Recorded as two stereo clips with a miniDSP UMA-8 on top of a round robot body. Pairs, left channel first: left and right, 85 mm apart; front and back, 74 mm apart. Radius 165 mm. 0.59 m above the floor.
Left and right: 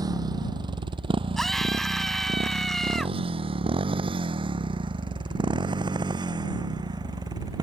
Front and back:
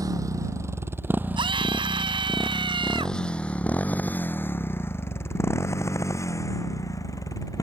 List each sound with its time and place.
0.0 s a motorcycle: 135° right; by 7.6 s 45° right
1.4 s a scream: 175° left